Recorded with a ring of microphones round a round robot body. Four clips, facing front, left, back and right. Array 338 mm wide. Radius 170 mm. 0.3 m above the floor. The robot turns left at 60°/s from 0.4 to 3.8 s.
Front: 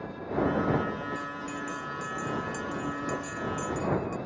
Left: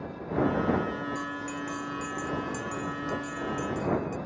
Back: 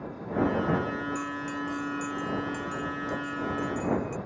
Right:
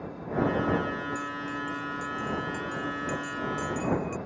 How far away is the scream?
No scream in this recording.